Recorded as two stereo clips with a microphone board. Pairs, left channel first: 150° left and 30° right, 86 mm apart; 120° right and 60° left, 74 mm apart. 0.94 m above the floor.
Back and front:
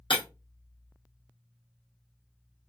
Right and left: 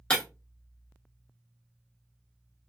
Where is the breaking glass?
165° left, 1.0 m.